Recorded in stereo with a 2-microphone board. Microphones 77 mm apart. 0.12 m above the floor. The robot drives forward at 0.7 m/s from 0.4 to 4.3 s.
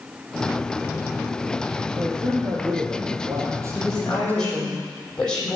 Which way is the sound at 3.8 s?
10° left (ahead or behind).